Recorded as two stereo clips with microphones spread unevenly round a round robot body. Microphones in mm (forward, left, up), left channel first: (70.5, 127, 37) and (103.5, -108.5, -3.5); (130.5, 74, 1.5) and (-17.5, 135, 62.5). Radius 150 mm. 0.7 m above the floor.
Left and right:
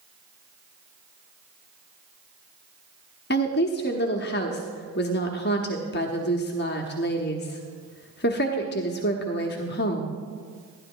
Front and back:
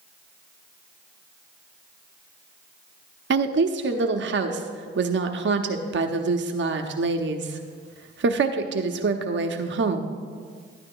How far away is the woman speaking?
About 1.0 m.